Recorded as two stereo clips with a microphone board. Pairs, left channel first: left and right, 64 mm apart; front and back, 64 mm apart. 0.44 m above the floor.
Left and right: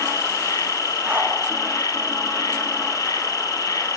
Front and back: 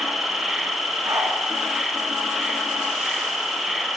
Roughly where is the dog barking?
Behind right.